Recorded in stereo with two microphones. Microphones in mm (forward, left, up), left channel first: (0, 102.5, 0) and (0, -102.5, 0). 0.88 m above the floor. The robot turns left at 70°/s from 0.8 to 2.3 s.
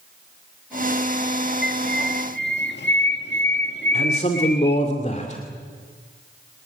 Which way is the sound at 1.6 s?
115° left.